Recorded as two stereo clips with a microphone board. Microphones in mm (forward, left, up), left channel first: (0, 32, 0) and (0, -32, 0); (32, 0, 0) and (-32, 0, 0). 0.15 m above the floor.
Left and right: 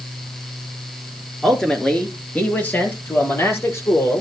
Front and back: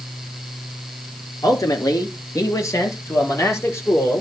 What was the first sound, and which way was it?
A man speaking, 5° left.